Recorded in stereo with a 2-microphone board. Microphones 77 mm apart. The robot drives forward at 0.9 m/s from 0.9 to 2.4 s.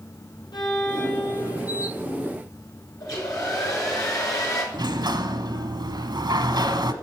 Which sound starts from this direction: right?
A sliding door, at 4.7 s.